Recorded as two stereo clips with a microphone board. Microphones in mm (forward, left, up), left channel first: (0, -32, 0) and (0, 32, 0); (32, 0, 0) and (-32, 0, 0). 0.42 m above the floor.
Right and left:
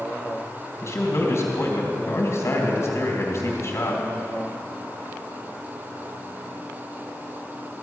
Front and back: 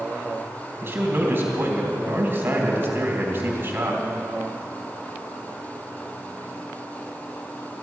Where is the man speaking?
125° right, 2.5 m.